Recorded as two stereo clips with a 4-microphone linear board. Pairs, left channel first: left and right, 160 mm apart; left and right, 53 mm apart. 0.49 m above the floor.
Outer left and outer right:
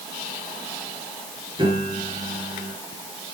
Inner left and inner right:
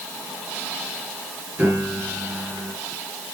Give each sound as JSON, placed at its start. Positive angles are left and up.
{"t": 1.6, "sound": "a piano", "side_deg": -30, "distance_m": 8.0}